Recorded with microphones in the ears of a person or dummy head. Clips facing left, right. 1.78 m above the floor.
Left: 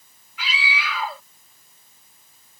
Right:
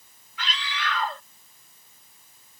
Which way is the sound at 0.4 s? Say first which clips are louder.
Left 3 dB; 5° left (ahead or behind).